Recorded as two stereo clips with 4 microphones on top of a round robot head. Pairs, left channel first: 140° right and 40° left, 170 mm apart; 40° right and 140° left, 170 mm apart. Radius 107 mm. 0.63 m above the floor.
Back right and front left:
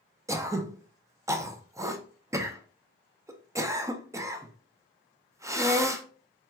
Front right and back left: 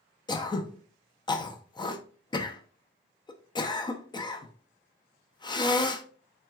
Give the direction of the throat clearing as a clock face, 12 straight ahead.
12 o'clock.